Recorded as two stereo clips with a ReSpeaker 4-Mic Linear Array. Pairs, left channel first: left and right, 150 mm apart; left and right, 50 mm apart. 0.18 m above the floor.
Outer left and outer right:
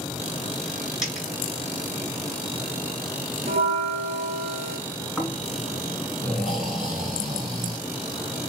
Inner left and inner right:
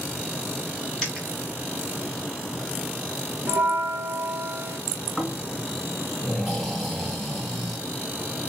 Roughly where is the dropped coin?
Centre.